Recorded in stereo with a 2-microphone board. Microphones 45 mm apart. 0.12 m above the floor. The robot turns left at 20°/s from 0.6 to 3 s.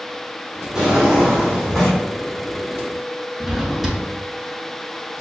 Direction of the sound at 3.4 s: 5° right (ahead or behind).